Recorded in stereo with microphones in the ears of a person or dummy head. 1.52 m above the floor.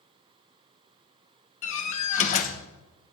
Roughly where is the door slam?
Left.